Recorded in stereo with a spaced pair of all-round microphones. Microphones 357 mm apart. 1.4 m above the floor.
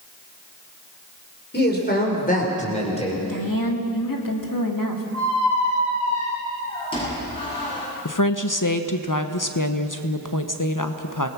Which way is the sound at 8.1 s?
60° left (ahead or behind).